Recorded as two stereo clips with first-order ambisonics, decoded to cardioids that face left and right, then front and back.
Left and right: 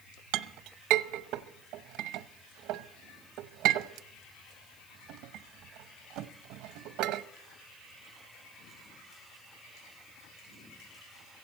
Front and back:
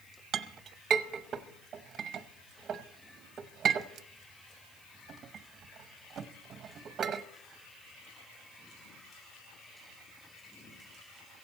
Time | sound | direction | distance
0.3 | a clink | 120° right | 0.6 m